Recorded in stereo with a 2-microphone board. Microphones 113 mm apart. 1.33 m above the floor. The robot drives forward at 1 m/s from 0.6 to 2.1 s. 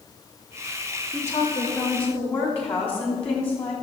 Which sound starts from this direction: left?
A woman speaking, at 1.1 s.